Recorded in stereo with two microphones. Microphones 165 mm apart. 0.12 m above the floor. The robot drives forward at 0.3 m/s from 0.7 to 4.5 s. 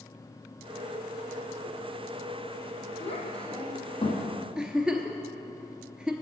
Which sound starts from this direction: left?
A child speaking, at 3.0 s.